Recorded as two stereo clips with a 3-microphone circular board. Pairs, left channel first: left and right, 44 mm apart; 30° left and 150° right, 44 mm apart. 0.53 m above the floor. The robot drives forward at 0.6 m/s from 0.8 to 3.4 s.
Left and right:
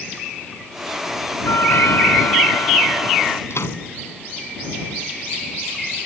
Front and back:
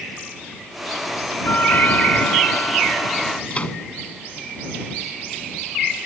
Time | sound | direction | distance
1.4 | a doorbell | 75° left | ?
3.5 | a microwave | 95° left | ?